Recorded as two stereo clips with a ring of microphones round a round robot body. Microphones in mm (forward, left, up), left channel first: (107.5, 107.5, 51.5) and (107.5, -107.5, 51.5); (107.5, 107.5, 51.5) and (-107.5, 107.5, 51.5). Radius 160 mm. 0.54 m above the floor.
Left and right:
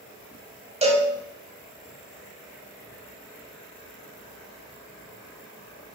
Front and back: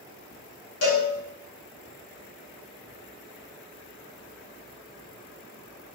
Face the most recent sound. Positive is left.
turn(degrees=-30)